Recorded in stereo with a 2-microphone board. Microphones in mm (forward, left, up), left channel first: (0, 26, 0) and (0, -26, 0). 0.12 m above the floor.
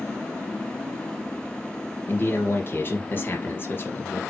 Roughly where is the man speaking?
Left.